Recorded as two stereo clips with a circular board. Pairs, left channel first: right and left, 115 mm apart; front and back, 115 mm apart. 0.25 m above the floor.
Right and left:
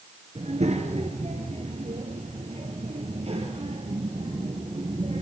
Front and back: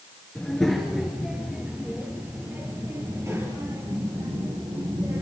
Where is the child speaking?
85° left, 3.5 m; by 5.2 s 125° left, 6.5 m.